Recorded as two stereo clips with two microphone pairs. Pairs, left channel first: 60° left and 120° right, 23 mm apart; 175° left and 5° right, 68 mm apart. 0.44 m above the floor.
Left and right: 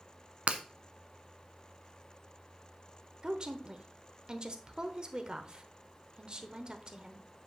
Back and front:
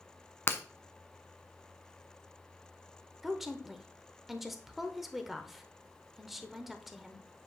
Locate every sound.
0.5 s breaking glass: 130° right, 0.8 m
3.2 s a woman speaking: 90° right, 1.0 m